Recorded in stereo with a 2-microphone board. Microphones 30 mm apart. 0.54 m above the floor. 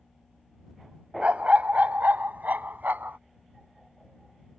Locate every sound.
1.2 s a dog barking: 45° right (ahead or behind); by 3.2 s 85° right